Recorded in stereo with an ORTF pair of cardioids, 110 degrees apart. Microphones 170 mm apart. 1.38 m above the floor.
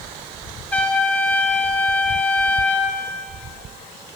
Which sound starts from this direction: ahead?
A trumpet, at 0.7 s.